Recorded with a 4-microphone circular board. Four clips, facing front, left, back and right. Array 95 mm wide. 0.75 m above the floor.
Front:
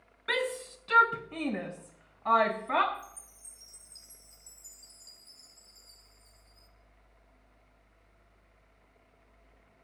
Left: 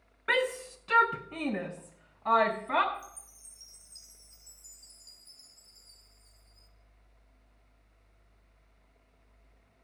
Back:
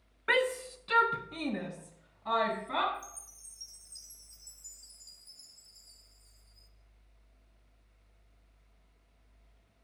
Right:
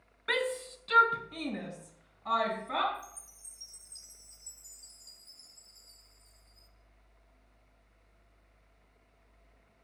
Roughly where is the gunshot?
I don't hear a gunshot.